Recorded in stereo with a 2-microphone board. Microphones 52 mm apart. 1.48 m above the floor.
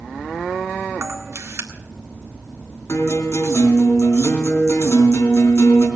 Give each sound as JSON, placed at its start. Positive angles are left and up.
{"t": 1.0, "sound": "a camera shutter", "side_deg": -65, "distance_m": 1.8}
{"t": 2.9, "sound": "a guitar", "side_deg": 70, "distance_m": 3.5}